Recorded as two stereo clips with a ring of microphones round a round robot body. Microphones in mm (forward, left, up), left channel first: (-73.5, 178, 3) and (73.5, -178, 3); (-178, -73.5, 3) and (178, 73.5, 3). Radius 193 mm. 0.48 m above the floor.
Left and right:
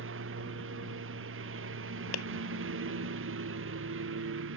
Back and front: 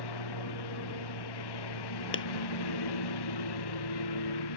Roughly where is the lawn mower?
Behind right.